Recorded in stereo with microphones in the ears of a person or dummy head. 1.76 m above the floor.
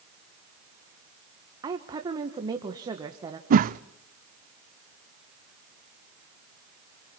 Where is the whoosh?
50° right (ahead or behind), 0.6 m.